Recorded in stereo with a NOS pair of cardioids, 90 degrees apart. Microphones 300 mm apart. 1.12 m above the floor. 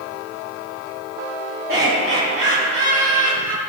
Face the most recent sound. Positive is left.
turn(degrees=-60)